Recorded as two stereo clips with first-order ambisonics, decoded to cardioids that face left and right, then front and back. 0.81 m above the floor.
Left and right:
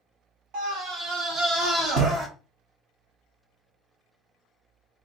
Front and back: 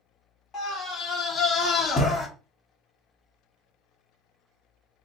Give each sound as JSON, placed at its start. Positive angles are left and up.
{"t": 0.5, "sound": "a scream", "azimuth_deg": -60, "distance_m": 1.4}